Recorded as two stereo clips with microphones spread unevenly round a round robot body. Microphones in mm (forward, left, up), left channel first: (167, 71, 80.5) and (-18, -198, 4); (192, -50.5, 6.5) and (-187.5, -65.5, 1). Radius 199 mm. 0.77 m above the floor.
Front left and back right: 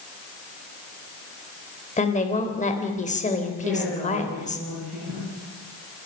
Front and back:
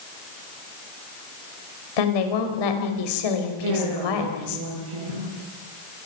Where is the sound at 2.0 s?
15° right, 4 m.